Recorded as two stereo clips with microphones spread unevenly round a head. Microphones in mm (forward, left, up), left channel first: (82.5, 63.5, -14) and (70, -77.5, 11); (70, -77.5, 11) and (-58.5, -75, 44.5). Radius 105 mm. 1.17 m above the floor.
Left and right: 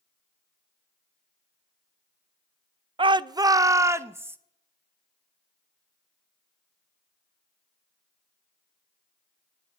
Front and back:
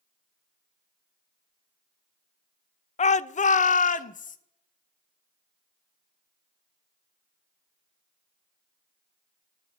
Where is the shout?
35° right, 0.6 m; by 4.4 s 20° right, 1.3 m.